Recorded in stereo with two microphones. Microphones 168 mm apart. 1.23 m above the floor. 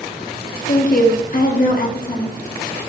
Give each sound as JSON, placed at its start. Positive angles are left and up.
{"t": 0.7, "sound": "a woman speaking", "side_deg": 55, "distance_m": 0.7}